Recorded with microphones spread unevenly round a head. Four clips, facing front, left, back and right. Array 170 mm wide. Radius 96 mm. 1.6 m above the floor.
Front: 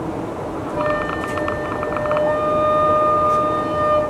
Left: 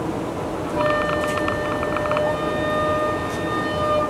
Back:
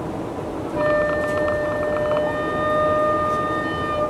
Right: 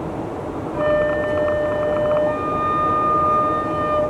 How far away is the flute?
About 2 m.